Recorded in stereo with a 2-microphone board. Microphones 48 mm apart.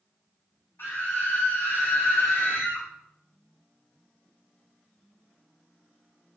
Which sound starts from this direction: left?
A scream, at 0.8 s.